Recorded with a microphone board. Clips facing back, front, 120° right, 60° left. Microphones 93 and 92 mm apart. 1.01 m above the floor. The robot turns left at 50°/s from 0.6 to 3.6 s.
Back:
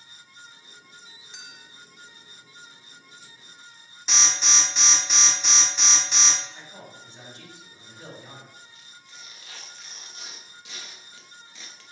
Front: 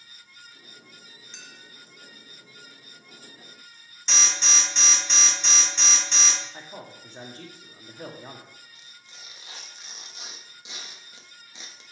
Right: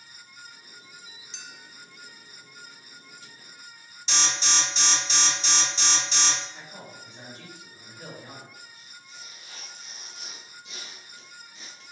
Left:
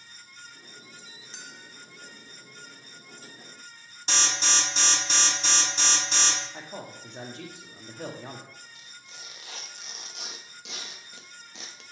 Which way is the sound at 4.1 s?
95° left.